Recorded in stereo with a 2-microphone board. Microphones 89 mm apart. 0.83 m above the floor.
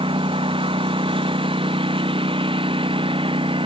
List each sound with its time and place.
0.0 s a lawn mower: 80° right